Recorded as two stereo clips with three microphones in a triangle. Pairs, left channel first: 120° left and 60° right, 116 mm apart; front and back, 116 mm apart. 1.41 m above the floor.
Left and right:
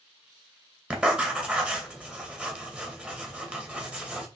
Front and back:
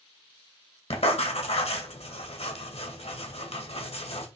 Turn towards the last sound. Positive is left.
turn(degrees=20)